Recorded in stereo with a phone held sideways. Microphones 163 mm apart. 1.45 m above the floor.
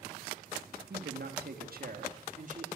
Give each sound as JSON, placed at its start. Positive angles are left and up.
{"t": 0.9, "sound": "a man speaking", "side_deg": -85, "distance_m": 3.5}